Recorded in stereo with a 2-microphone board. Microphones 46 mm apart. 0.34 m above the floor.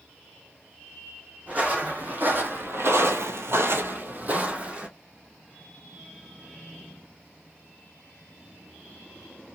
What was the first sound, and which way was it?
Footsteps, 30° right (ahead or behind).